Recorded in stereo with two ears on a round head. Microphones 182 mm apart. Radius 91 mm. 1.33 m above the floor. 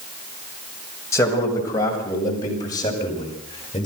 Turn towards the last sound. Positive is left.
turn(degrees=25)  # may be behind; listen again after turning